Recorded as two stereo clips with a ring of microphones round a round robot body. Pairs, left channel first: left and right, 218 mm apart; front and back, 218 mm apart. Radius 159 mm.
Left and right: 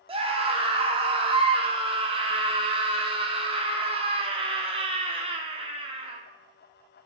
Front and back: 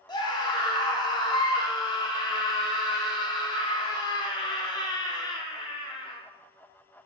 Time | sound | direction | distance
0.1 | a scream | 50° right | 0.8 m